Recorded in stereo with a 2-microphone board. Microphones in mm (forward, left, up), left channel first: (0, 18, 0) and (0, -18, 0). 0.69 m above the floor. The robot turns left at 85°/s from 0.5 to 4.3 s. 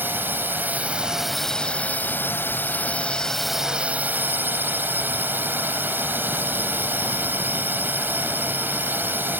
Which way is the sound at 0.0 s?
110° right.